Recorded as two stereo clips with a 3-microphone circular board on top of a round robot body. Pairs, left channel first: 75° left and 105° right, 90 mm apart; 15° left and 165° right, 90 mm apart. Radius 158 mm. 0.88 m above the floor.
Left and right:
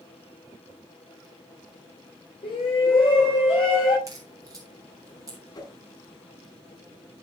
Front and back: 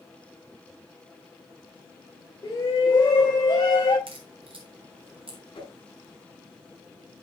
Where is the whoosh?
35° left, 7.5 m.